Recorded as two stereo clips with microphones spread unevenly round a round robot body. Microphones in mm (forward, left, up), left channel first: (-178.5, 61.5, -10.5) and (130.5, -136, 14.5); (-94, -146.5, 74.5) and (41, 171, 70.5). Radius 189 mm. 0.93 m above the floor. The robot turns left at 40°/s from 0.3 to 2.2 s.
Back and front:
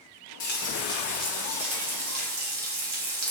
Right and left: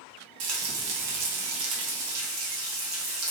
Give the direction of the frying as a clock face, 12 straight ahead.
9 o'clock.